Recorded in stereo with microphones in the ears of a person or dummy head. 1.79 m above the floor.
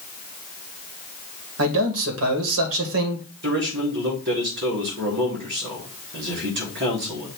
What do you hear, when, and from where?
1.6 s a man speaking: 80° right, 1.9 m
3.4 s a man speaking: 60° right (ahead or behind), 4 m